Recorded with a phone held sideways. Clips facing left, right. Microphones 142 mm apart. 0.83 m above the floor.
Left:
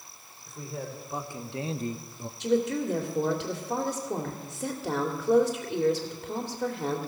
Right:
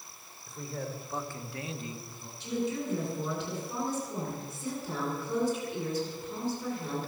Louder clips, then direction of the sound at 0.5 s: Left 1 dB; 5° left (ahead or behind).